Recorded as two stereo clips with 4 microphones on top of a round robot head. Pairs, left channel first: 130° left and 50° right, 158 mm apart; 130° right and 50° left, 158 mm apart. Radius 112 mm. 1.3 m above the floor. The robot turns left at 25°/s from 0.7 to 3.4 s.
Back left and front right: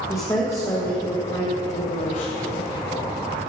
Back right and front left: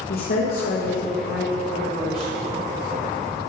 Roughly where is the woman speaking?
Behind right.